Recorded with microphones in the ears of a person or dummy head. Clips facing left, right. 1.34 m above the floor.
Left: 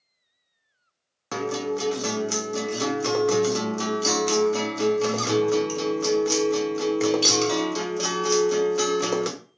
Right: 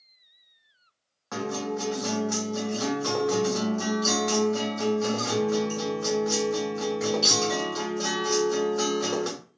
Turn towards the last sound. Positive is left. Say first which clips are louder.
# left 3 dB
turn(degrees=45)  # may be behind; listen again after turning